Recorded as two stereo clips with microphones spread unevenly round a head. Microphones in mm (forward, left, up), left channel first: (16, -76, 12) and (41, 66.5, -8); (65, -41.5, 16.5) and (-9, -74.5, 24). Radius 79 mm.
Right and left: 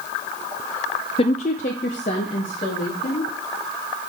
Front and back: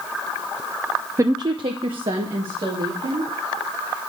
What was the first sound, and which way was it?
A woman speaking, 135° right.